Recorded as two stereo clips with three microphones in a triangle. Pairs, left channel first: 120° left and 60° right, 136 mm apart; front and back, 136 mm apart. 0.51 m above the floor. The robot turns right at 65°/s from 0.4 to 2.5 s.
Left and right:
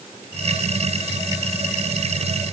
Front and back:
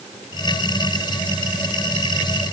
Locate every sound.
Only background noise.